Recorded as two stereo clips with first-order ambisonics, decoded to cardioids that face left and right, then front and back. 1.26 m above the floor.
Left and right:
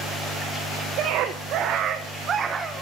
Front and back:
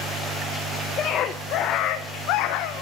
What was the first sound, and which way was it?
A scream, 55° right.